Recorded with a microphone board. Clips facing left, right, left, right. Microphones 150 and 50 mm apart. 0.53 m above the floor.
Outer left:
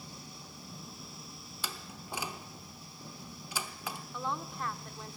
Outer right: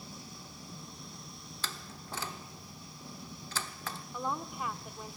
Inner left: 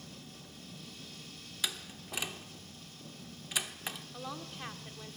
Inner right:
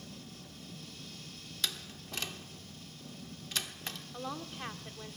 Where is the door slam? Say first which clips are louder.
Outer left 1 dB, even; 10° left (ahead or behind), 0.8 m.